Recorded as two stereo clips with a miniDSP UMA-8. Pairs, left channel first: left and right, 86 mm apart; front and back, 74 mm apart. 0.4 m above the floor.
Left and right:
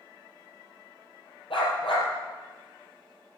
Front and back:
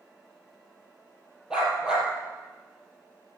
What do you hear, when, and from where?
1.5 s a dog barking: 100° left, 4 m